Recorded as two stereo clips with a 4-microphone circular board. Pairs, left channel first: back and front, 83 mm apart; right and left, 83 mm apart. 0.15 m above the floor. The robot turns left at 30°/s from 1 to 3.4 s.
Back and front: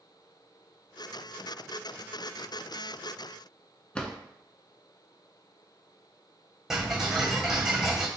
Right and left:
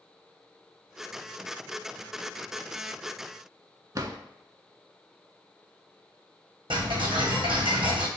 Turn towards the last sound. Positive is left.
turn(degrees=80)